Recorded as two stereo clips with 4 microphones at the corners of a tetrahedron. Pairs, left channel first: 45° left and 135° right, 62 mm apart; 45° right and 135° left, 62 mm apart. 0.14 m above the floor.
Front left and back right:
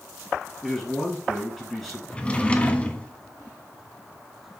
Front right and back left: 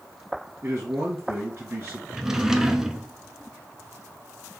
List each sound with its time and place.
0.6 s a man speaking: 125° left, 1.3 m
2.1 s a drawer: 70° left, 0.5 m